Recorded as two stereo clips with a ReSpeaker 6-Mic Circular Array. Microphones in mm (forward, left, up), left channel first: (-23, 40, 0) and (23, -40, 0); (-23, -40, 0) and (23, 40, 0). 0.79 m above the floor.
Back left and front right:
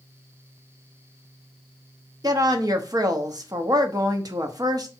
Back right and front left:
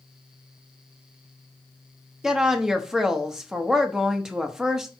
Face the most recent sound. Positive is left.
turn(degrees=-25)